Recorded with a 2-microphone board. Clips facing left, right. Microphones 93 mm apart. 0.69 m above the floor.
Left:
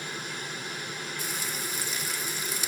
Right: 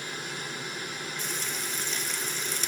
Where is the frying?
10° left (ahead or behind), 0.7 m.